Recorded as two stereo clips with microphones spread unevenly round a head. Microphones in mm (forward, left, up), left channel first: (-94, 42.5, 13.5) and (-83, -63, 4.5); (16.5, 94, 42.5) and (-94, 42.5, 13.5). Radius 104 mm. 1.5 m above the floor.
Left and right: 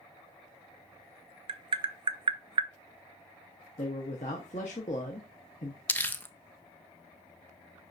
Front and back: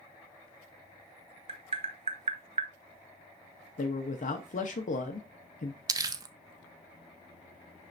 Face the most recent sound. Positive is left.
turn(degrees=145)